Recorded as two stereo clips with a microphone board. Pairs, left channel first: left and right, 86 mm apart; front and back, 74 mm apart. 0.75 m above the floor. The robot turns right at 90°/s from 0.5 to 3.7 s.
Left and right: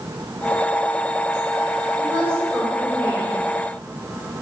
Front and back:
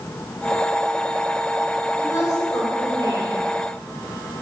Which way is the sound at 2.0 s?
60° right.